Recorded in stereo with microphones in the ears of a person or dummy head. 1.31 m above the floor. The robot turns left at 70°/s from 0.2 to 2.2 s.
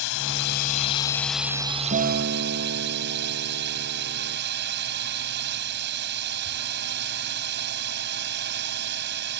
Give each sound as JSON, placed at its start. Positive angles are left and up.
{"t": 0.0, "sound": "a drone", "azimuth_deg": 80}
{"t": 1.9, "sound": "a guitar", "side_deg": -50}